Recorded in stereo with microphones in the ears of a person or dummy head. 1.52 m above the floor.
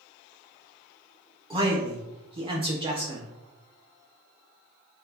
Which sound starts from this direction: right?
A man speaking, at 1.5 s.